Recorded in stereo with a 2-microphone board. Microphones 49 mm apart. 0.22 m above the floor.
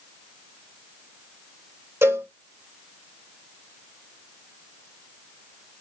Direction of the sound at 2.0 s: 75° right (ahead or behind).